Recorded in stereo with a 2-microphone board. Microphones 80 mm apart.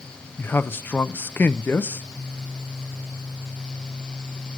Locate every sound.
0.4 s a man speaking: 25° left (ahead or behind), 0.6 m